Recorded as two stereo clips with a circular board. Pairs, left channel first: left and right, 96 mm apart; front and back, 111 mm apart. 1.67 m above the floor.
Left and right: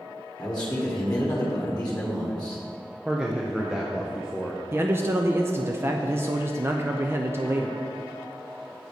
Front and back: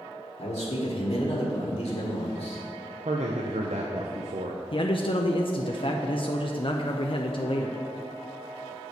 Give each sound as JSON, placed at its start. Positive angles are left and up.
{"t": 0.4, "sound": "a man speaking", "azimuth_deg": 10, "distance_m": 1.6}
{"t": 3.0, "sound": "a man speaking", "azimuth_deg": -170, "distance_m": 0.7}
{"t": 4.7, "sound": "a man speaking", "azimuth_deg": -25, "distance_m": 0.5}